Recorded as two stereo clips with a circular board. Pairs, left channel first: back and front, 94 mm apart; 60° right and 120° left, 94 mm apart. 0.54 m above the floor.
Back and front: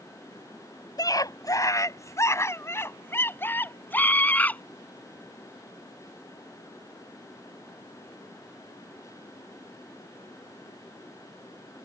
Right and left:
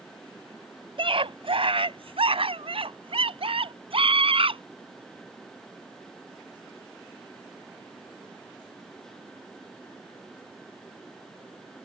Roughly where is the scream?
Behind left.